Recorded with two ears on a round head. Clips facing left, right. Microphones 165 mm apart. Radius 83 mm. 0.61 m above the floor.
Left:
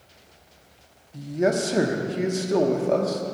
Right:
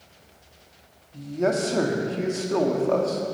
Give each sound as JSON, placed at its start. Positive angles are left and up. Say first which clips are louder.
{"t": 1.1, "sound": "a man speaking", "louder": "left 1 dB", "side_deg": 15, "distance_m": 0.8}